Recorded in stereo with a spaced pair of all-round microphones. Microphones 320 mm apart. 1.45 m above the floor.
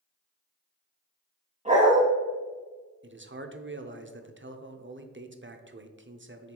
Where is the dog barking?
20° right (ahead or behind), 2.5 m.